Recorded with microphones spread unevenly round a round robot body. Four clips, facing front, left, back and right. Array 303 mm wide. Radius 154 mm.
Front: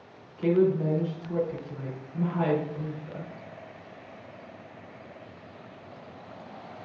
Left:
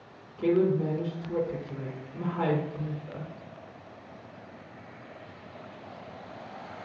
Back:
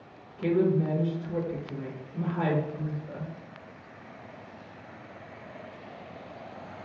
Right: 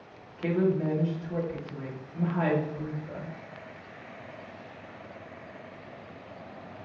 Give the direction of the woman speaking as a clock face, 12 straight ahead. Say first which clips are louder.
Left 2 dB, front 2 dB; 8 o'clock.